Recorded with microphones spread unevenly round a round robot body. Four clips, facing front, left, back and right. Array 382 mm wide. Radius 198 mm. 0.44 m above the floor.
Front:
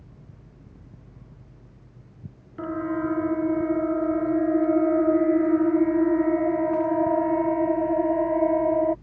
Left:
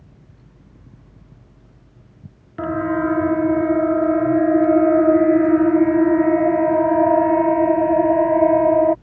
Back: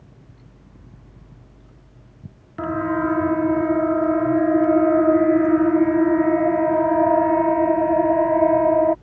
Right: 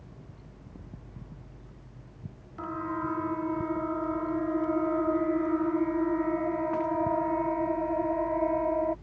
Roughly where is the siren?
Behind left.